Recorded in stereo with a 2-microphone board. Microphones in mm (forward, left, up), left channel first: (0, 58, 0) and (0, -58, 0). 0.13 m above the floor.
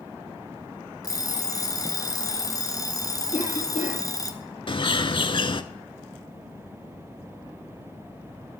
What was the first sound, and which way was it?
An alarm clock, 30° left (ahead or behind).